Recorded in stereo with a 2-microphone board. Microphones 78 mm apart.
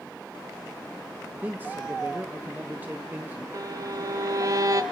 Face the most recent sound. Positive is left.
turn(degrees=-45)  # may be behind; listen again after turning